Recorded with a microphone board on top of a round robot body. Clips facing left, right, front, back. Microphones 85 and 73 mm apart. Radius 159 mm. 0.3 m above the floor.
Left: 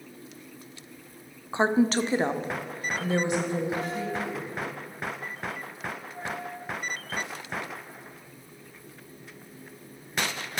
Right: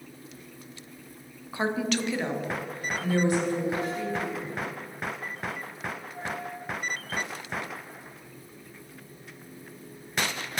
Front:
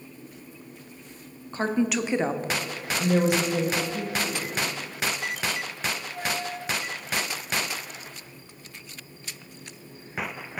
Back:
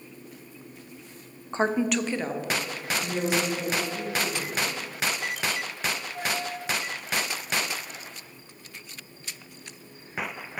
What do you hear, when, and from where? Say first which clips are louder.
1.5 s a woman speaking: left 5 dB, even; 135° left, 1.0 m; by 4.5 s 15° left, 3 m